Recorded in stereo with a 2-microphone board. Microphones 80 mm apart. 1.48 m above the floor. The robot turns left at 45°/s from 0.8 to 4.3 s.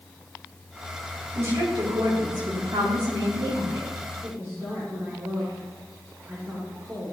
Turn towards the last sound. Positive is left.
turn(degrees=-40)  # may be behind; listen again after turning